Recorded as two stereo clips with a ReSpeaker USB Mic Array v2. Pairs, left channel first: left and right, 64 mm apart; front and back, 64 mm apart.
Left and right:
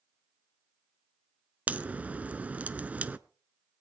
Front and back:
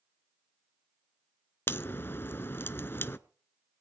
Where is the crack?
30° right, 0.5 m.